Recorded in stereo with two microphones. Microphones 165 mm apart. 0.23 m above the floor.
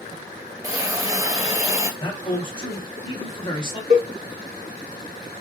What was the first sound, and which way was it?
A hiss, 20° right (ahead or behind).